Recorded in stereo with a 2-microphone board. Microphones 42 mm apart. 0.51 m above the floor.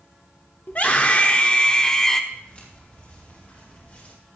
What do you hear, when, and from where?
0.7 s a scream: 45° left (ahead or behind), 1.4 m; by 2.2 s 10° left (ahead or behind), 1.3 m
2.3 s footsteps: 35° left (ahead or behind), 6 m; by 4.2 s 40° left (ahead or behind), 5 m